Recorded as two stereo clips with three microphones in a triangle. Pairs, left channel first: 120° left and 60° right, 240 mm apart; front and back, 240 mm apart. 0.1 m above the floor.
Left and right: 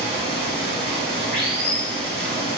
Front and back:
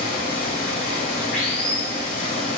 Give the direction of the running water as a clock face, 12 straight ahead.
1 o'clock.